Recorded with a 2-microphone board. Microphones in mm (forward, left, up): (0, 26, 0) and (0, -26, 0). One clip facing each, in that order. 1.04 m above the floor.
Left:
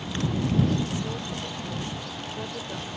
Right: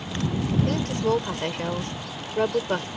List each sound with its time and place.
0.7 s a woman speaking: 65° right (ahead or behind)